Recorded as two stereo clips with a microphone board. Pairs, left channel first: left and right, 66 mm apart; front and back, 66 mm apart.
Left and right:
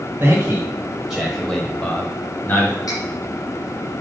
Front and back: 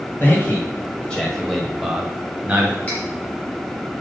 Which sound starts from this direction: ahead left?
Cutlery clinking, at 2.9 s.